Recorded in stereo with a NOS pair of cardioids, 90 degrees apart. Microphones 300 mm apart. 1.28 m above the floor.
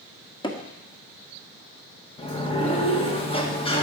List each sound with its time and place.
0.4 s hammering: 15° left, 1.9 m
2.2 s a sliding door: 20° left, 1.8 m